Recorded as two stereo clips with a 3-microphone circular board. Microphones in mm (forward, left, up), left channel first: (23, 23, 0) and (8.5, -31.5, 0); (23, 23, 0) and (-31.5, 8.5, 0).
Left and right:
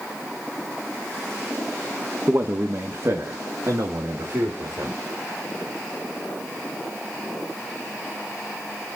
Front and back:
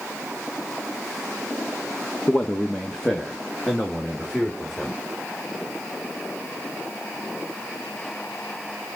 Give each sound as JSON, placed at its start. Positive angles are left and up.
{"t": 2.3, "sound": "a man speaking", "azimuth_deg": -55, "distance_m": 1.0}